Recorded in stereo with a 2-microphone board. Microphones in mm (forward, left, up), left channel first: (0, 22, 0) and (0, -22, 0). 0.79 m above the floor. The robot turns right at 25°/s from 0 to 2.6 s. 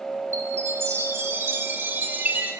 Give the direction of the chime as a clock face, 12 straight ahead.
3 o'clock.